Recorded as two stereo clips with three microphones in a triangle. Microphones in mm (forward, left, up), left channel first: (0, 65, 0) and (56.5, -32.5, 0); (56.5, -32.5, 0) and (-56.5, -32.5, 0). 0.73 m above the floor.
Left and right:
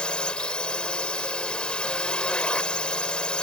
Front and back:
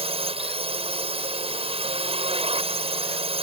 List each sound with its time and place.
0.0 s a drone: 160° right